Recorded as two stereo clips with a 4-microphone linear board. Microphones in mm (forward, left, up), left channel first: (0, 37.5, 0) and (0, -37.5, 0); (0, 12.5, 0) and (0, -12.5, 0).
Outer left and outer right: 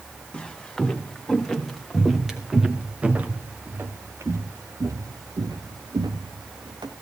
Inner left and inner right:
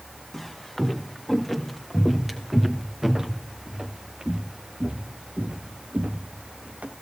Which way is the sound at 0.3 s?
10° left (ahead or behind).